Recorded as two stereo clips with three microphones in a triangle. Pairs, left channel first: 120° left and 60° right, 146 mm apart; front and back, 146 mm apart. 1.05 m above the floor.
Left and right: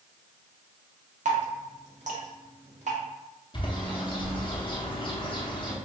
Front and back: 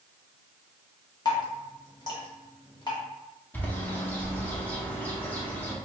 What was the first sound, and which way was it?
Dripping, 50° right.